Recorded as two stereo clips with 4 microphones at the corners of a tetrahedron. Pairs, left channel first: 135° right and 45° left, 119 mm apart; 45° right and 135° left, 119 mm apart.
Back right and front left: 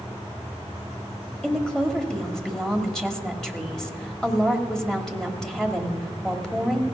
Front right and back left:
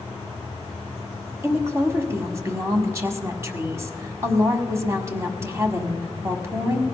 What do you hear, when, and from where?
1.4 s a woman speaking: 145° left, 1.5 m